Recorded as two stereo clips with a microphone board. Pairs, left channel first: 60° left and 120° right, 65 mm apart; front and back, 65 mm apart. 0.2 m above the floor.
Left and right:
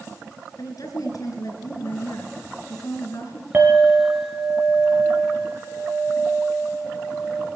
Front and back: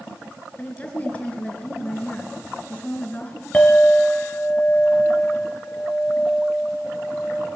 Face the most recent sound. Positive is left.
turn(degrees=-65)